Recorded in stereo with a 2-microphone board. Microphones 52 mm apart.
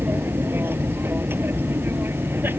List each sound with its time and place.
0.0 s an aircraft: 40° right (ahead or behind)